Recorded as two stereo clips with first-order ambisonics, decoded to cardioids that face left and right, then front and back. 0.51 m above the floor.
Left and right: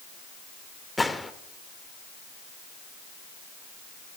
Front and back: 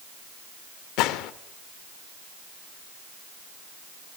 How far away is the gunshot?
About 0.9 m.